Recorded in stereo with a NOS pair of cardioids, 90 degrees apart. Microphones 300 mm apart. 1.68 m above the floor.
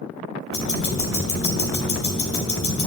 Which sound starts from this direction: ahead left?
Ticking, at 0.5 s.